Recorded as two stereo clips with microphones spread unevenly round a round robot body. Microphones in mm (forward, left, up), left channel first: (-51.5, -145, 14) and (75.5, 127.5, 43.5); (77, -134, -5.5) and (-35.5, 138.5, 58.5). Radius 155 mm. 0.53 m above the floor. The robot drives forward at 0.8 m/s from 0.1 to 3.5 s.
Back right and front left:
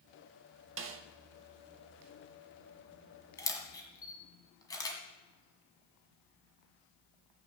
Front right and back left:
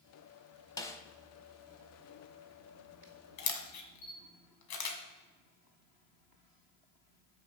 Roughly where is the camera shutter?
Ahead right.